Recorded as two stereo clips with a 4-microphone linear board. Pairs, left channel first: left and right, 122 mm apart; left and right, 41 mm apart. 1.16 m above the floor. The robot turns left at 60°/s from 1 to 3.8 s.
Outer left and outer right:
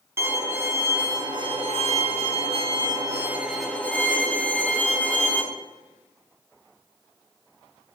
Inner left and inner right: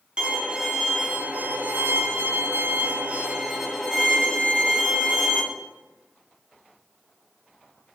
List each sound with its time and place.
0.2 s a violin: 25° right, 1.3 m; by 5.4 s 170° left, 1.3 m